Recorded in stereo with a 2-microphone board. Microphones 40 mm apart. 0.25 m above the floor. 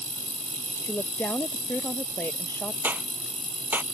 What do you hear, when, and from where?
0.8 s a woman speaking: 70° left (ahead or behind)
2.8 s a clap: 55° right (ahead or behind)